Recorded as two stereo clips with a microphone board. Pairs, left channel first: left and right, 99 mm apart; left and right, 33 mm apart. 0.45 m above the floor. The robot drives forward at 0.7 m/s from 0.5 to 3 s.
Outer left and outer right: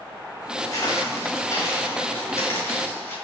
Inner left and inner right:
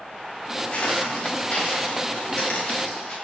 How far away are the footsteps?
About 5 m.